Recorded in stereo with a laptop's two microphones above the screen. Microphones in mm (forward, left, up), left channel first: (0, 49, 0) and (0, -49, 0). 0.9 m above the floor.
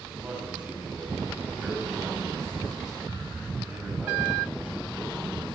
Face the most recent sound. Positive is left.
turn(degrees=-15)  # may be behind; listen again after turning